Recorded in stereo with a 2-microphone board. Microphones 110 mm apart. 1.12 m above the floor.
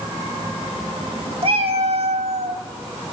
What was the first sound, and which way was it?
A cat meowing, 65° right (ahead or behind).